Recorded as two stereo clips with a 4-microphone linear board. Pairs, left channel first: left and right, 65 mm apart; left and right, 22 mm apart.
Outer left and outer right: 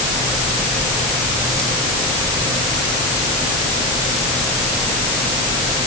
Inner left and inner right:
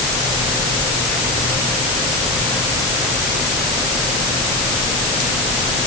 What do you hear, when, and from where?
Only background noise.